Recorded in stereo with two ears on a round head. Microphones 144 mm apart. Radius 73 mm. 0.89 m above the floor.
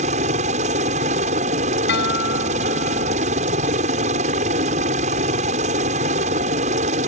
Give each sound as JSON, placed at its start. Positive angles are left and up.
{"t": 0.0, "sound": "a helicopter", "side_deg": -45}
{"t": 1.9, "sound": "a guitar", "side_deg": 70}